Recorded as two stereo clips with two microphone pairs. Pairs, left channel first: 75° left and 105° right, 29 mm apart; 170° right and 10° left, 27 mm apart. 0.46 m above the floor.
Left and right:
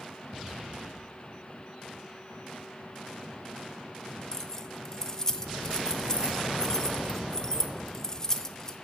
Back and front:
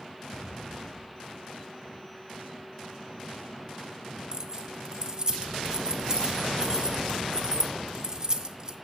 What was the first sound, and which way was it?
Keys jangling, 25° left.